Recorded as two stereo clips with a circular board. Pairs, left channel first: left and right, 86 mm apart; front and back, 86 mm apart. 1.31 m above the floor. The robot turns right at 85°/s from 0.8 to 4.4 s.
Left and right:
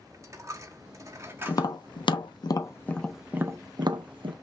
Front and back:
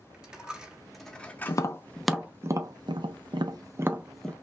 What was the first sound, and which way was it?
A dropped coin, 105° right.